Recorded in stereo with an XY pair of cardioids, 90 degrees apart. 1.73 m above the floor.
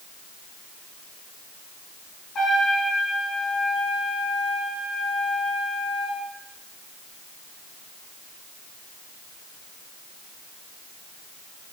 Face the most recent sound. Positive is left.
turn(degrees=60)